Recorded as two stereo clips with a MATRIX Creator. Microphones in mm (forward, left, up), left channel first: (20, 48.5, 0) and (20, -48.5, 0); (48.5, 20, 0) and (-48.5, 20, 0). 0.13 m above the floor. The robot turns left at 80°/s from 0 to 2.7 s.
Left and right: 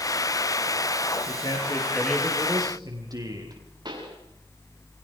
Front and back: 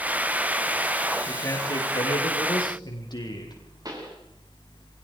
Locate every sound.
1.3 s a man speaking: 75° left, 5.5 m; by 3.6 s 40° right, 5.5 m
3.9 s a pop: 130° right, 7 m